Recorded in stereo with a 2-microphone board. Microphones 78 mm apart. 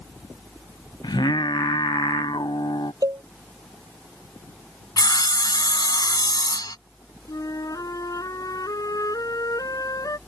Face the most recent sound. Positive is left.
turn(degrees=55)  # may be behind; listen again after turning